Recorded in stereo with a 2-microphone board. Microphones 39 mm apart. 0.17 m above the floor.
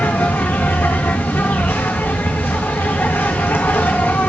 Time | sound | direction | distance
0.0 | an insect | 75° left (ahead or behind) | 2.5 m